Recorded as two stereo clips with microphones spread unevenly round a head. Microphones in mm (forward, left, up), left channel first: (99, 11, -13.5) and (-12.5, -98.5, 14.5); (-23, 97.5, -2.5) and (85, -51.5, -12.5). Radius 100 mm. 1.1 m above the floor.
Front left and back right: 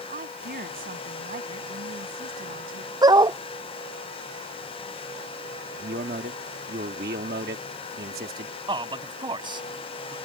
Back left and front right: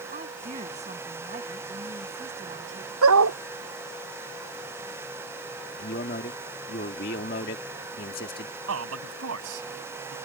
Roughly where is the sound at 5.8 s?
Behind.